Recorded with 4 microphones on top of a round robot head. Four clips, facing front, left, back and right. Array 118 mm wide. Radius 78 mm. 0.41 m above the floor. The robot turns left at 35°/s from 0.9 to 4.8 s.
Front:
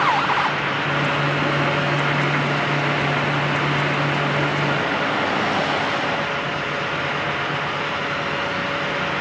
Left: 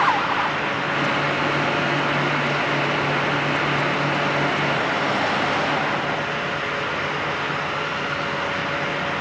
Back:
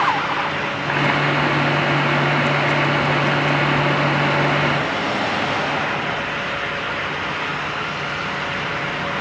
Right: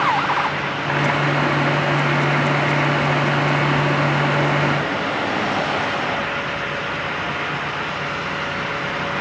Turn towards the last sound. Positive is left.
No sound to turn to.